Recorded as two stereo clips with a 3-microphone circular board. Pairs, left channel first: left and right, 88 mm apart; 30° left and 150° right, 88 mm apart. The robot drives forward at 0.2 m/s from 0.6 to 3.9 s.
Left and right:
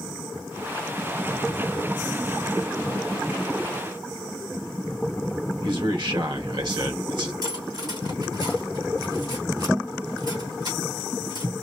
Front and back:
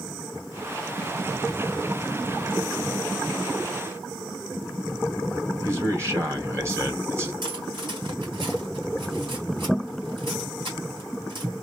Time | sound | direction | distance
5.6 | a man speaking | 95° right | 1.8 m
7.4 | cutlery clinking | 125° right | 3 m